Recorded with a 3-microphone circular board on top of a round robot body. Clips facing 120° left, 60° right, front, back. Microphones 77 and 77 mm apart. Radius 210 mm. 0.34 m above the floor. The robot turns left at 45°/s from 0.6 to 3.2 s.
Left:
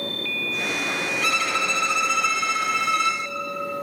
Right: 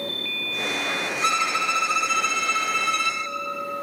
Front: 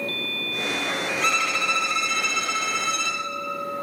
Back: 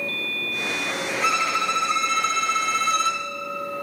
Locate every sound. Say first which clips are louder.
1.2 s a violin: right 3 dB, back 3 dB; 95° right, 1.3 m; by 3.2 s 175° left, 1.3 m